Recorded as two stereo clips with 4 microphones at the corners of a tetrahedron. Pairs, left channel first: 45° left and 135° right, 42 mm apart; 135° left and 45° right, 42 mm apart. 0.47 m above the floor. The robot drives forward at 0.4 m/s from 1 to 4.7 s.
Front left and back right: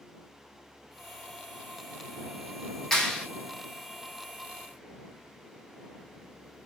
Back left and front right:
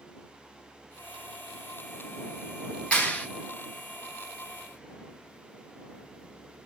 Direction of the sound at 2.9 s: 115° left.